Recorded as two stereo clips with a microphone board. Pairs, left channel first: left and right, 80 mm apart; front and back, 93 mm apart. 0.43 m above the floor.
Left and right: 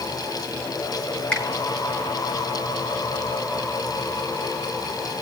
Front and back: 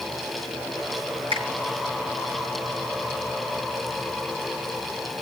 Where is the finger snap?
170° left, 5 m.